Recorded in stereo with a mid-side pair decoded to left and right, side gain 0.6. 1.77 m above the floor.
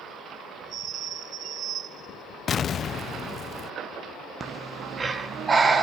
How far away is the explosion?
About 1.0 m.